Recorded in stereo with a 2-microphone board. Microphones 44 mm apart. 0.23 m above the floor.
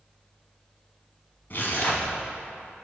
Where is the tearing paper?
45° left (ahead or behind), 1.3 m.